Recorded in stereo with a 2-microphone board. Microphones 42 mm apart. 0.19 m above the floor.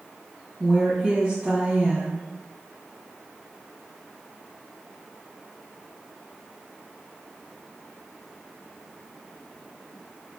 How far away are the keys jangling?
I don't hear keys jangling.